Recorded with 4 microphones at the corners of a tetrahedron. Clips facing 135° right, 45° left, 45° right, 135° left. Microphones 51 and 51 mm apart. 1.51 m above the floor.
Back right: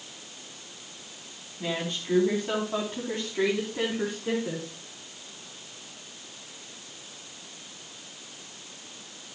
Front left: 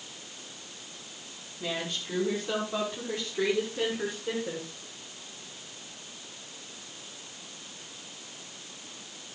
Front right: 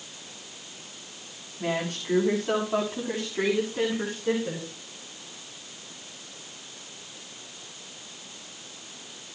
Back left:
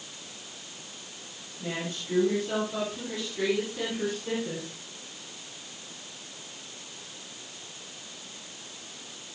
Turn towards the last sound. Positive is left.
turn(degrees=-120)